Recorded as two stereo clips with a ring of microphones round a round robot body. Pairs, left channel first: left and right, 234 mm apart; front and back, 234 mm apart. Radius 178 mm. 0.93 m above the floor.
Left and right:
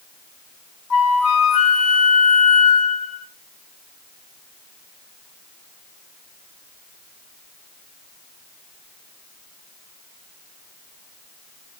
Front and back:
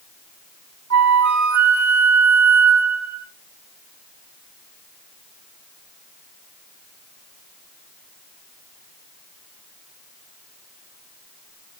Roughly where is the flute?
Behind left.